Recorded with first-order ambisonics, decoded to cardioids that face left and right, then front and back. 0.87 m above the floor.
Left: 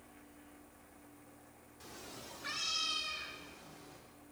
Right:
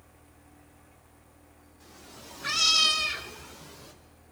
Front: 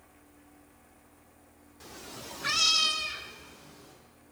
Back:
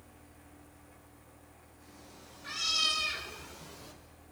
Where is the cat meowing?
15° left, 1.3 m; by 3.9 s 120° right, 2 m.